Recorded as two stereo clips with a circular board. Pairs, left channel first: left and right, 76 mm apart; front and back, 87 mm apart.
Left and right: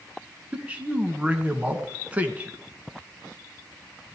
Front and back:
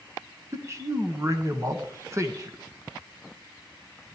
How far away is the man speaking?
About 1.5 m.